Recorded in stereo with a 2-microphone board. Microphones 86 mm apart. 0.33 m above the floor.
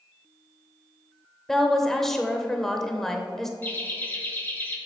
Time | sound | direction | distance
1.5 | a woman speaking | 5° left (ahead or behind) | 0.9 m
3.6 | laughter | 25° left (ahead or behind) | 0.9 m